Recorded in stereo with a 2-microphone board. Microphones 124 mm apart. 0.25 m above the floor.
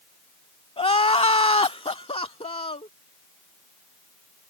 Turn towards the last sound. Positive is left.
turn(degrees=50)  # may be behind; listen again after turning